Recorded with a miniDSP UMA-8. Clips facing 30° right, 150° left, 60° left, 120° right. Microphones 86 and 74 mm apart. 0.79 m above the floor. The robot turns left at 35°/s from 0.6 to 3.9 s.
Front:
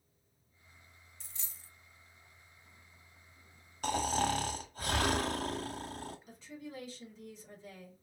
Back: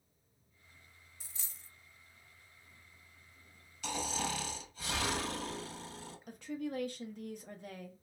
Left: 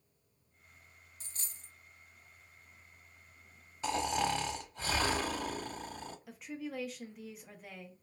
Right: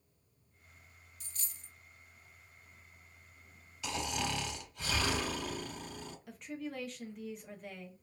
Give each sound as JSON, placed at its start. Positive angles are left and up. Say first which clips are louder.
{"t": 1.2, "sound": "a dropped coin", "louder": "even, left 1 dB", "azimuth_deg": 70, "distance_m": 0.6}
{"t": 3.8, "sound": "snoring", "louder": "front 6 dB, left 5 dB", "azimuth_deg": 10, "distance_m": 0.6}
{"t": 6.3, "sound": "a woman speaking", "louder": "back 7 dB, right 1 dB", "azimuth_deg": 150, "distance_m": 0.7}